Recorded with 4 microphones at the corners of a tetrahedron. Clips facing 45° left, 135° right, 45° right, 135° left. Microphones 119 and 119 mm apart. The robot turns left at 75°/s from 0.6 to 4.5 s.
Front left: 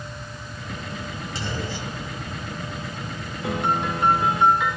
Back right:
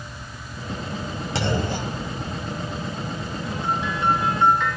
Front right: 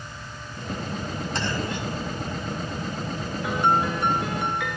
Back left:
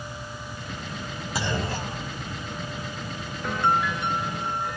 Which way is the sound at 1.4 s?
140° right.